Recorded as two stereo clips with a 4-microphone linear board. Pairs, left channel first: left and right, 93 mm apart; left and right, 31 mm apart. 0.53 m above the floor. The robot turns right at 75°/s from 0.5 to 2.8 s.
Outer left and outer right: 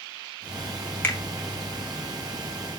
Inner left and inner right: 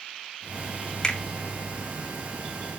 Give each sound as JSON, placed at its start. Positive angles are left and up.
{"t": 1.0, "sound": "a finger snap", "side_deg": 25, "distance_m": 2.5}